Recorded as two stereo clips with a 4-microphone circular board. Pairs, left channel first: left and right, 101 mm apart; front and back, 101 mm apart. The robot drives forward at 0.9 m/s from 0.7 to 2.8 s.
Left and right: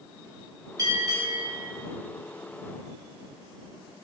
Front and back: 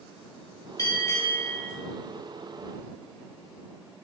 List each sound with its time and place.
0.8 s a bell: 45° right, 3.5 m; by 1.7 s 60° right, 3 m